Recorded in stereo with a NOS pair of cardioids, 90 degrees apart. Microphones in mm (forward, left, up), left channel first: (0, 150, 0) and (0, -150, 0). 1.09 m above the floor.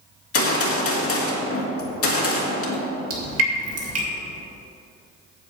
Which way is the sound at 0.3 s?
50° left.